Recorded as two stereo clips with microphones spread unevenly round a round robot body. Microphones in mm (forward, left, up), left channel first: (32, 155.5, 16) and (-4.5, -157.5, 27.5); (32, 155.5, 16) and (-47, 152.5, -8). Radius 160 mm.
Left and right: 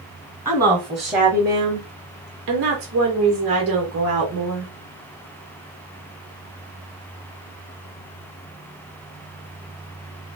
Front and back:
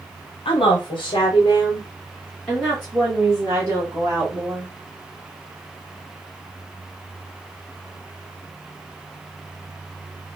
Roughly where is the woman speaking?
Ahead.